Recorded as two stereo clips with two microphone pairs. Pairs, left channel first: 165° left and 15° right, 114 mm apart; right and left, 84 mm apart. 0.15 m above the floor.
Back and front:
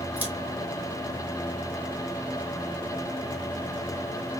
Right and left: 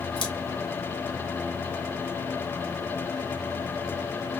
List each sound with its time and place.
0.2 s scissors: 90° right, 1.8 m